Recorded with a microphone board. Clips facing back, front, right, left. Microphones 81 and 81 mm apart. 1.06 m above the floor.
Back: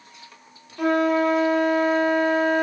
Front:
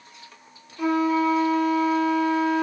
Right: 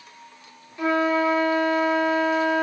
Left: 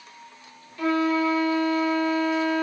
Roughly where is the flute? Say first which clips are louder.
Back 2 dB, right 1 dB; behind.